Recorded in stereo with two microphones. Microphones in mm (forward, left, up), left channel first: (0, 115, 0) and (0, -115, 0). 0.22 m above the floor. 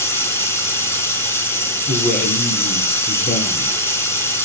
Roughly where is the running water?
Centre.